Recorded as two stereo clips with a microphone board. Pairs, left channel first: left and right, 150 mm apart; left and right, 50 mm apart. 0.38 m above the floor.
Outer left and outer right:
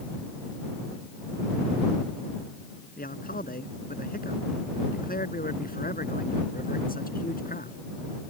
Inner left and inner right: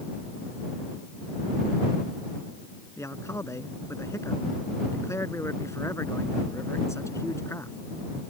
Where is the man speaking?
75° left (ahead or behind).